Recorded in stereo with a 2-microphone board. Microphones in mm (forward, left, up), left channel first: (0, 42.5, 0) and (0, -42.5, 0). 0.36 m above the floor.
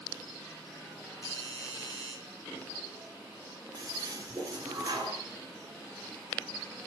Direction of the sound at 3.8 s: 50° right (ahead or behind).